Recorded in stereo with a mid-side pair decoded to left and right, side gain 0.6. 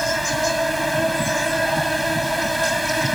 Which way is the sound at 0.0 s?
5° right.